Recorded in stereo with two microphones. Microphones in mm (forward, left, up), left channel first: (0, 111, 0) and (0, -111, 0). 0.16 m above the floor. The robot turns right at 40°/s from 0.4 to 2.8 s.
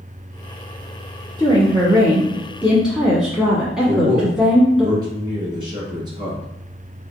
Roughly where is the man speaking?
Right.